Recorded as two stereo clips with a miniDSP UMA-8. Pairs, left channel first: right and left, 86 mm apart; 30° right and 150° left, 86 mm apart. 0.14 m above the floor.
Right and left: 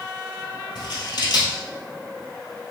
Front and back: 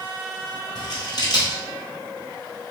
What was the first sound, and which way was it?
Scissors, 60° right.